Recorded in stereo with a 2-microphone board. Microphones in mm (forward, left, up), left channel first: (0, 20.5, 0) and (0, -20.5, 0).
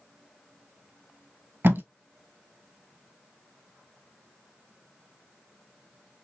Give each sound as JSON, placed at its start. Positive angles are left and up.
{"t": 1.6, "sound": "tape being pulled", "side_deg": -55, "distance_m": 0.6}